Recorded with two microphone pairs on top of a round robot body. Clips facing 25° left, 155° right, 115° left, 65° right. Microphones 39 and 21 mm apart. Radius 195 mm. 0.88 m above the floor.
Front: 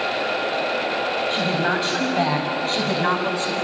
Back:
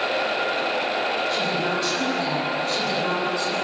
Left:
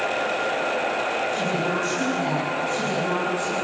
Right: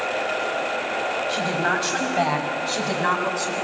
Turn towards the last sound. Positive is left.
turn(degrees=-25)